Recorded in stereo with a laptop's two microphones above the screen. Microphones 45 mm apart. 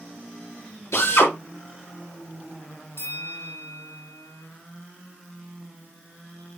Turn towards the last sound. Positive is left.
turn(degrees=60)  # may be behind; listen again after turning